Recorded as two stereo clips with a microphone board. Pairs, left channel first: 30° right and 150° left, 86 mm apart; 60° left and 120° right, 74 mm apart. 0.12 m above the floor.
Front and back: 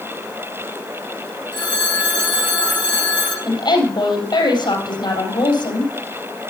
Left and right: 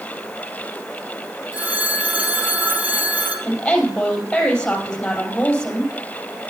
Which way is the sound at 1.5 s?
55° right.